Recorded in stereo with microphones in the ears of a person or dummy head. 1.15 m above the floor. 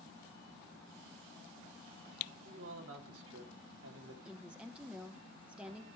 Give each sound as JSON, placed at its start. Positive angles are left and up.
{"t": 2.5, "sound": "a man speaking", "side_deg": -75, "distance_m": 2.5}
{"t": 4.2, "sound": "a woman speaking", "side_deg": -5, "distance_m": 0.8}